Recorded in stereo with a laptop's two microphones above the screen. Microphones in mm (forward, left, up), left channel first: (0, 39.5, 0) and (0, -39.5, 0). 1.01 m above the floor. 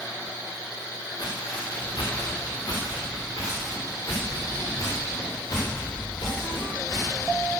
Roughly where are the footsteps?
Left.